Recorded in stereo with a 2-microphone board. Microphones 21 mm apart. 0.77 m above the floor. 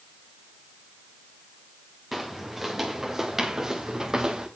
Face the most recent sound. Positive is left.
turn(degrees=-30)  # may be behind; listen again after turning